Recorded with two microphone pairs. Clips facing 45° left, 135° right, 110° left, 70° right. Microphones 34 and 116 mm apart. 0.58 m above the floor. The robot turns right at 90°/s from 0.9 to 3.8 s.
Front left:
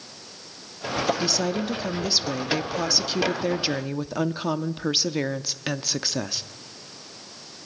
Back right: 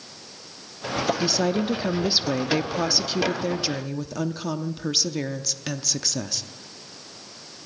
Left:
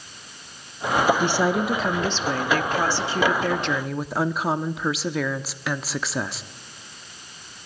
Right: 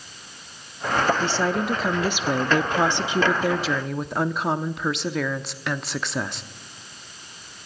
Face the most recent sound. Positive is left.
turn(degrees=25)